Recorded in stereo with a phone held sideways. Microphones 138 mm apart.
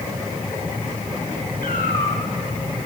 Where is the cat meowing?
85° left, 6 m.